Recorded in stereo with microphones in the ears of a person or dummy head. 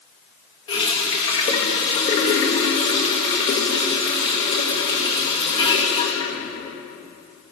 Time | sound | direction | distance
0.7 | a running tap | 20° left (ahead or behind) | 0.9 m